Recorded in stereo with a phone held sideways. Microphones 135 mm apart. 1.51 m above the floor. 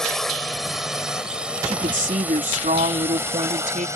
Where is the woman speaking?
80° right.